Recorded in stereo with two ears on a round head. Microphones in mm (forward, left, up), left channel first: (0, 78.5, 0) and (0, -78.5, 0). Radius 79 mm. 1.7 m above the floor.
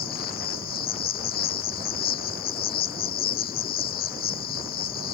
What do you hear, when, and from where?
0.0 s an insect: 55° left (ahead or behind)